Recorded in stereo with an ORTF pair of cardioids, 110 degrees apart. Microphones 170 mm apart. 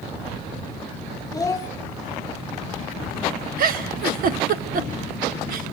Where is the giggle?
55° right, 1.3 m.